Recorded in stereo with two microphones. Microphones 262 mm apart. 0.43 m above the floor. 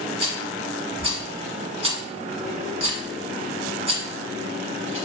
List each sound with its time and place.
0.2 s a rattle: 25° right (ahead or behind), 1.6 m